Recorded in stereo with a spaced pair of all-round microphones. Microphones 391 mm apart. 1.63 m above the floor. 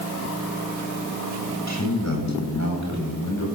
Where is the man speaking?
45° left (ahead or behind), 10 m.